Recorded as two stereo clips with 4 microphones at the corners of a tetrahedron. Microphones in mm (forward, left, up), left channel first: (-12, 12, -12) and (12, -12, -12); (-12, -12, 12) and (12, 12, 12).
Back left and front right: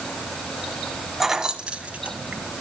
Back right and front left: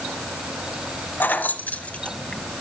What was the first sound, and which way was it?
Keys jangling, 125° right.